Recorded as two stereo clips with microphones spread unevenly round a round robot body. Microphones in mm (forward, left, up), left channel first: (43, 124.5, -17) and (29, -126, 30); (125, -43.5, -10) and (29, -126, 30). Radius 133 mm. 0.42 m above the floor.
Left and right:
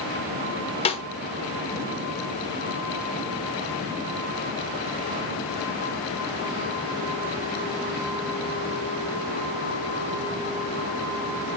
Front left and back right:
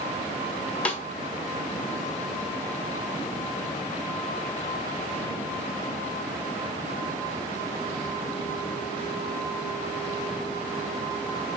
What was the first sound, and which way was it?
A snare drum, 75° left.